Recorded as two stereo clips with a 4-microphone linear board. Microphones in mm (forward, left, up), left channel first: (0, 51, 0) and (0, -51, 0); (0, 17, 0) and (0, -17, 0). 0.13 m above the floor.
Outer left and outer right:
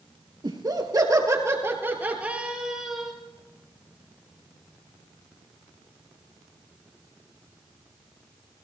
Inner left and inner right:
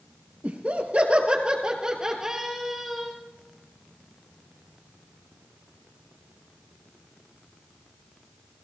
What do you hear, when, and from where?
0.4 s laughter: 50° right (ahead or behind), 2.5 m; by 3.1 s 5° right (ahead or behind), 2.5 m